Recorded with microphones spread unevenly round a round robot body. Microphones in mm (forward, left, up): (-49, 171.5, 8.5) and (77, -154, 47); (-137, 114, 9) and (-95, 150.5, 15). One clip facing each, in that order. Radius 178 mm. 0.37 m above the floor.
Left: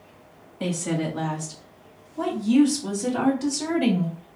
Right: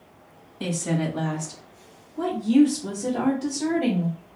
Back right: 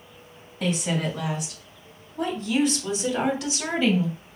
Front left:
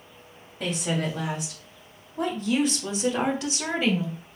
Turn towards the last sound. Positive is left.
turn(degrees=115)